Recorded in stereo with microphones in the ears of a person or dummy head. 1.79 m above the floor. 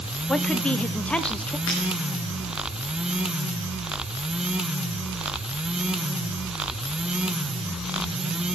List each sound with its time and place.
0.3 s a woman speaking: centre (ahead or behind), 0.7 m
1.7 s breaking glass: 70° left (ahead or behind), 7.5 m